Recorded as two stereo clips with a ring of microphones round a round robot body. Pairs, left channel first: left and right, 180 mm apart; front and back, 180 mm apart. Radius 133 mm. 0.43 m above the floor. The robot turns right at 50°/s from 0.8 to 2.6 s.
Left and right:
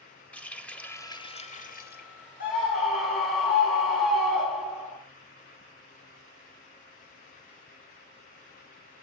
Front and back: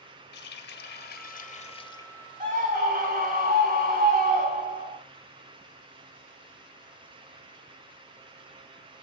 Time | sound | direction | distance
0.3 | a running tap | 10° left | 1.6 m
2.4 | a scream | 140° left | 3 m